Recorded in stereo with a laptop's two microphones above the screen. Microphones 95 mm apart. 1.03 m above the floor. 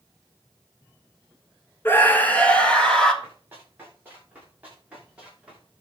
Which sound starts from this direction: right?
Running footsteps, at 3.2 s.